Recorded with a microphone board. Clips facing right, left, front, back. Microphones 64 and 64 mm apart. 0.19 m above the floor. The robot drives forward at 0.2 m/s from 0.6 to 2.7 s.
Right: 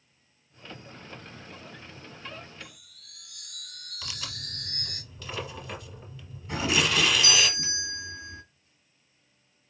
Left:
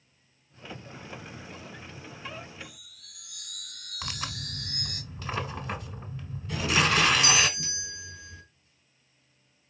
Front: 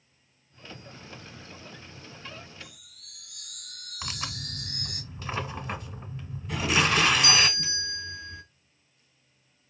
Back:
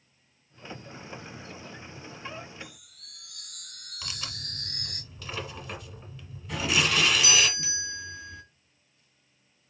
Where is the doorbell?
90° right, 1.8 m.